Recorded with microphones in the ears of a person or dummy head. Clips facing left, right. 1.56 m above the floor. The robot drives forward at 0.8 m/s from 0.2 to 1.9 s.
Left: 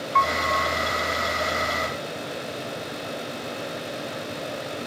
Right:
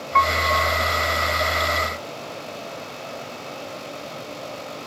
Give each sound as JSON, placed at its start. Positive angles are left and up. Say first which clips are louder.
{"t": 0.1, "sound": "a piano", "louder": "right 3 dB", "side_deg": -45}